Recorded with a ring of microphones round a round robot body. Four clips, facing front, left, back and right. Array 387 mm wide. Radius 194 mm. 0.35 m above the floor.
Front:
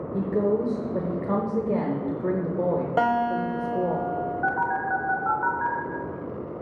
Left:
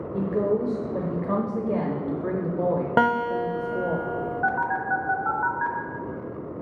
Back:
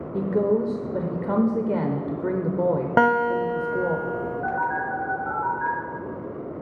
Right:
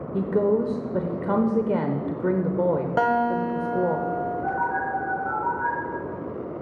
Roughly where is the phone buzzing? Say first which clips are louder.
Left 4 dB, front 1 dB; ahead left.